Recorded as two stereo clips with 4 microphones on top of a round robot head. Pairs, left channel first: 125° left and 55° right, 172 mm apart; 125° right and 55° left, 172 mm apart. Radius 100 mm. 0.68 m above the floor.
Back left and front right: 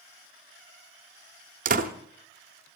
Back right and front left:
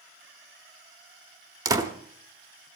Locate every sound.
1.6 s a door slam: 15° right, 1.3 m